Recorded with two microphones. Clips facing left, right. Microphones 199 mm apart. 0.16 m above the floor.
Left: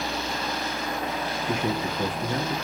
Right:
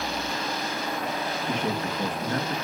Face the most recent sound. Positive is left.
turn(degrees=10)  # may be behind; listen again after turning